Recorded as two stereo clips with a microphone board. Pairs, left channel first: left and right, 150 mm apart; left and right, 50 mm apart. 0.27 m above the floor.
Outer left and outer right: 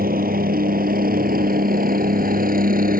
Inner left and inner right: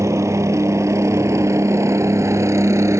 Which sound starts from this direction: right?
A helicopter, at 0.0 s.